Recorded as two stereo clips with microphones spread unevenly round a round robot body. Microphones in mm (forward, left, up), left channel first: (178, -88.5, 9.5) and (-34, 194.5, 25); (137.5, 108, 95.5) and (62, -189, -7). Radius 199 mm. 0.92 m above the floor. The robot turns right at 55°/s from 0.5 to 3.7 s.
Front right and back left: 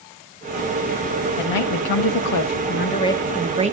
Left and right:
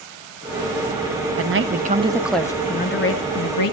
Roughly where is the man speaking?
Right.